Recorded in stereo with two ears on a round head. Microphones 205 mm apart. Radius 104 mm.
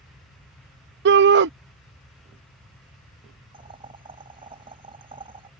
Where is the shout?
50° right (ahead or behind).